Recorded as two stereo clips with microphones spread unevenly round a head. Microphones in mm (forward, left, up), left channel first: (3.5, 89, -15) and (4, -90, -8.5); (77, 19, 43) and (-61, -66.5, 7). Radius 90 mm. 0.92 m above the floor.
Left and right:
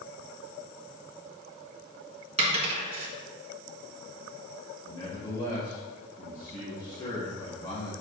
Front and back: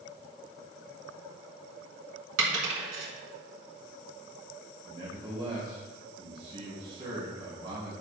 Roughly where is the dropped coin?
Behind right.